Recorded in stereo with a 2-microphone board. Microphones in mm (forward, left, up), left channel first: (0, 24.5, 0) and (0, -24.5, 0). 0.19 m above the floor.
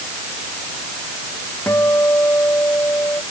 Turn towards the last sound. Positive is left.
turn(degrees=60)  # may be behind; listen again after turning